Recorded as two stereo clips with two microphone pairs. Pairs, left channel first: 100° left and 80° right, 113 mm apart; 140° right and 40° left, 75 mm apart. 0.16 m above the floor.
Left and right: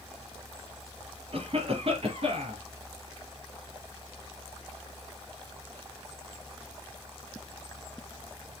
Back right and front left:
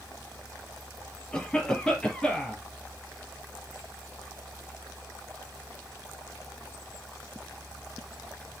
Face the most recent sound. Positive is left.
turn(degrees=-60)